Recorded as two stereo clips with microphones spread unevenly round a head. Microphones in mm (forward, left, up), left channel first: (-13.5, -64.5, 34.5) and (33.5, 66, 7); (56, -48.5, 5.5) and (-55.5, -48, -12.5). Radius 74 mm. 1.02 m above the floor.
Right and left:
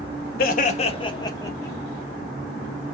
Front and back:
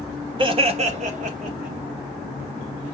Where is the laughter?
140° right, 1.3 m; by 1.8 s 175° left, 2.5 m.